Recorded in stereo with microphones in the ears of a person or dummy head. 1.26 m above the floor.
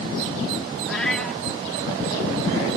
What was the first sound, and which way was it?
A cat meowing, 5° right (ahead or behind).